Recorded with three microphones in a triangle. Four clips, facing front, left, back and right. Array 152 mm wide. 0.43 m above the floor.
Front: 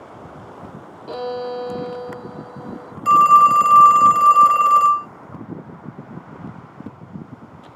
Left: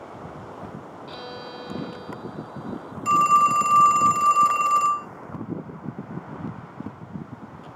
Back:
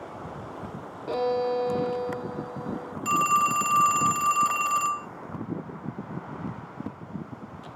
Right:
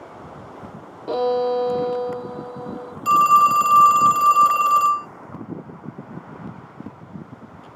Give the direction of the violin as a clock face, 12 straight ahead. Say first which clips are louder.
Right 20 dB, back 1 dB; 3 o'clock.